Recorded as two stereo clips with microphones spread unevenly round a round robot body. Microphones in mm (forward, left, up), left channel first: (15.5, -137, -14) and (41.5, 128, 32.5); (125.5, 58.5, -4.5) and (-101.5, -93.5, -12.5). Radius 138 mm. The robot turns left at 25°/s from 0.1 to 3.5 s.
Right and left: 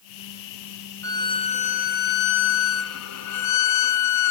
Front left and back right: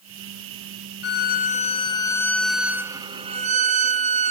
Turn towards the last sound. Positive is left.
turn(degrees=-80)